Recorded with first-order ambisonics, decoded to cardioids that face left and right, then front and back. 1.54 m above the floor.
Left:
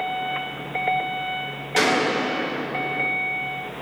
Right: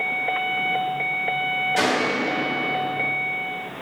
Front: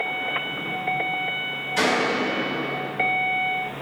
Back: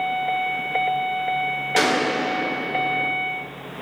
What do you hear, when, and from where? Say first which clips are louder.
1.8 s a gunshot: left 6 dB, back 1 dB; 150° left, 0.7 m